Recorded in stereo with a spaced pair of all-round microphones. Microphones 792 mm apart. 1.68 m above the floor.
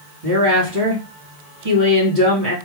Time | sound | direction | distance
0.2 | a woman speaking | 75° right (ahead or behind) | 2.5 m